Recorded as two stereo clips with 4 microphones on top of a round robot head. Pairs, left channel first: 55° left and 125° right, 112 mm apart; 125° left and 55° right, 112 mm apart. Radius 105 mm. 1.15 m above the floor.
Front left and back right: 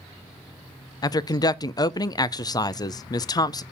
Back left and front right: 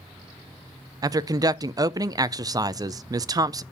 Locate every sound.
1.0 s a woman speaking: straight ahead, 0.5 m